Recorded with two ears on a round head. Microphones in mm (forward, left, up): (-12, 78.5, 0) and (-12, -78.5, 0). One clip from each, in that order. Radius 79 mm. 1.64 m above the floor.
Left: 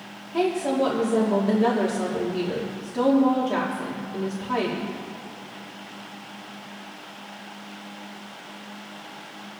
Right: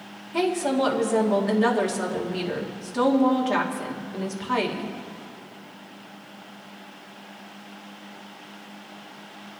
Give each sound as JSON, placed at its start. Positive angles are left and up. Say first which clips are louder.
{"t": 0.3, "sound": "a woman speaking", "louder": "even", "side_deg": -45, "distance_m": 2.0}